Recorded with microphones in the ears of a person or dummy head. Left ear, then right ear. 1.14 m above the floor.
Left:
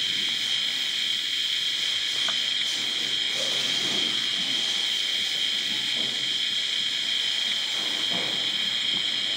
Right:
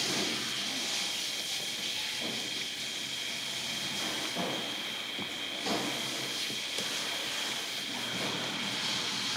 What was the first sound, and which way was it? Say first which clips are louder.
A machine running: left 7 dB; 50° left (ahead or behind).